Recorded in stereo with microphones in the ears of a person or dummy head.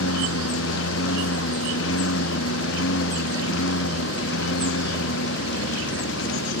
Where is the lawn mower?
90° left; by 6.6 s 80° left.